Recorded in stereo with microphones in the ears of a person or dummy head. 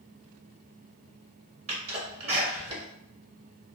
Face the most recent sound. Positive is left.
turn(degrees=-35)  # may be behind; listen again after turning